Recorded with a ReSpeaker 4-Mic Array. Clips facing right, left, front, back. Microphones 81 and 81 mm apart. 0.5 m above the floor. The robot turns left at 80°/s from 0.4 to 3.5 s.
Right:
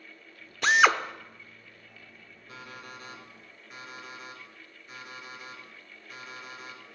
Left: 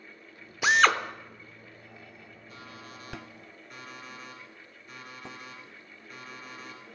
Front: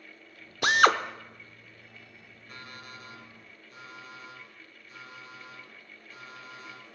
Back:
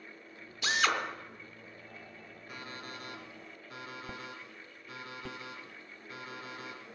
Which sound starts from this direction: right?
An alarm clock, at 2.5 s.